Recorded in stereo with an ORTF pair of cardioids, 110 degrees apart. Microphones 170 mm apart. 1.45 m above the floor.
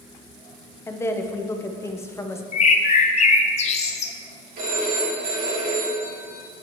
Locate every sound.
0.9 s a woman speaking: 15° left, 0.8 m
2.5 s a bird: 45° left, 0.8 m
4.6 s a phone ringing: 60° right, 2.5 m